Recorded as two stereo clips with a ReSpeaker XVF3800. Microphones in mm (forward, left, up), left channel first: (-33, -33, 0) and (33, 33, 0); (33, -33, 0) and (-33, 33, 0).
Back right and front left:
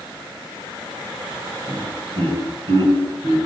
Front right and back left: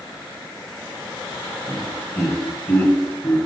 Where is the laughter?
35° left, 1.7 m.